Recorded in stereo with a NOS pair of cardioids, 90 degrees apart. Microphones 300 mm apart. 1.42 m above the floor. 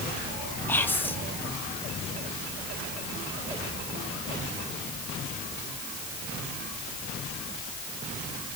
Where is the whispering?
5° left, 1.4 m.